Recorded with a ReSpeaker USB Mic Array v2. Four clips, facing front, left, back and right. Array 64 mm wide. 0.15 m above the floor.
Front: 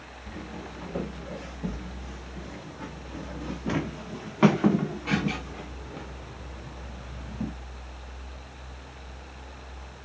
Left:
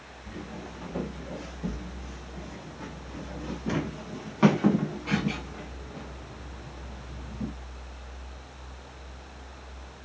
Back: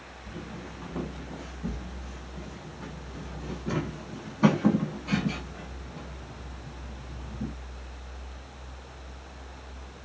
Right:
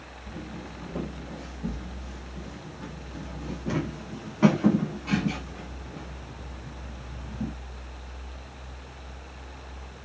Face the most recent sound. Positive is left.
turn(degrees=-10)